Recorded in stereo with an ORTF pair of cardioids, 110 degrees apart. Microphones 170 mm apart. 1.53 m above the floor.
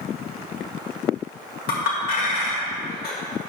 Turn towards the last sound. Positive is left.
turn(degrees=70)